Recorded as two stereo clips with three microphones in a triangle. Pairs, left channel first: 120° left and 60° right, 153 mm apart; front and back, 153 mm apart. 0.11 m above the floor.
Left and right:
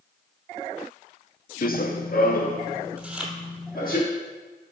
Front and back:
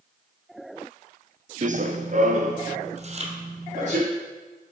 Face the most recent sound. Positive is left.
turn(degrees=-145)